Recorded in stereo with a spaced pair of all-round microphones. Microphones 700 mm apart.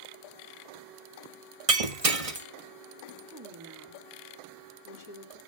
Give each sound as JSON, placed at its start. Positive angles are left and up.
{"t": 1.7, "sound": "breaking glass", "side_deg": -50, "distance_m": 1.4}
{"t": 3.3, "sound": "a woman speaking", "side_deg": -25, "distance_m": 2.5}